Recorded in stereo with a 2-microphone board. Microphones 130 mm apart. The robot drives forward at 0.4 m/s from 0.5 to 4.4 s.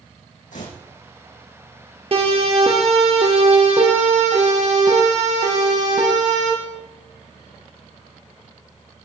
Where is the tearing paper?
80° left, 5.5 m.